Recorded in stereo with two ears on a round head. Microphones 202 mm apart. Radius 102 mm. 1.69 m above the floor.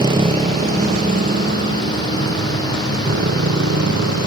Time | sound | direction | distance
0.0 | a motorcycle | 20° right (ahead or behind) | ?